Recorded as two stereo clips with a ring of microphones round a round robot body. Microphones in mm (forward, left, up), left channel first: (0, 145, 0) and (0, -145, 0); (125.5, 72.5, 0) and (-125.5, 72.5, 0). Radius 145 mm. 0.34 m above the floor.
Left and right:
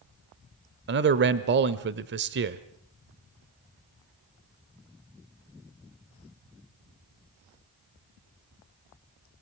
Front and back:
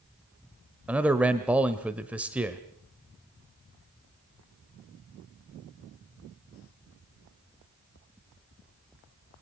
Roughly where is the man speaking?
Right.